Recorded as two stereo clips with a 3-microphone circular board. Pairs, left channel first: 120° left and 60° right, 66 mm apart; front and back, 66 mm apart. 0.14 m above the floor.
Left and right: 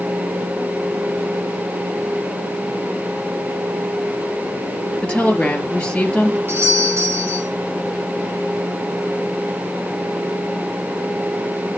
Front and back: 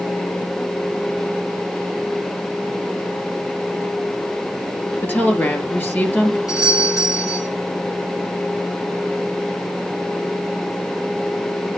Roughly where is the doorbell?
Ahead.